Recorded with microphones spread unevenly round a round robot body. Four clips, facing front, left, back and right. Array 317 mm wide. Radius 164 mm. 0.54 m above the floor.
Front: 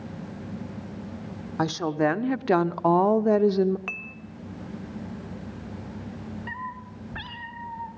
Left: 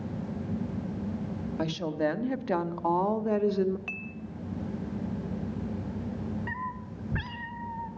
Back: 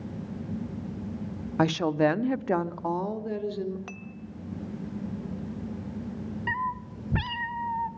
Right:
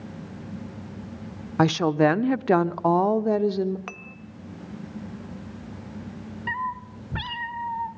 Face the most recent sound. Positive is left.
turn(degrees=-175)